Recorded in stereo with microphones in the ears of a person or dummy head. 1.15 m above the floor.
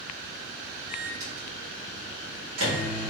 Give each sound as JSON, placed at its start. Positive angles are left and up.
{"t": 0.9, "sound": "a microwave", "side_deg": -85, "distance_m": 1.4}